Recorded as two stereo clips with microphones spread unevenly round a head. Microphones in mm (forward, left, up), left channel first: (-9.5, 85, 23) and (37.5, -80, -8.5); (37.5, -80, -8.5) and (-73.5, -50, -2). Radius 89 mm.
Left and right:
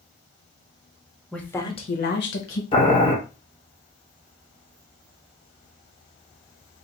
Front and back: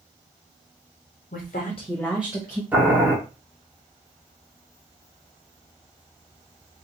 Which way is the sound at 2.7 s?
100° left.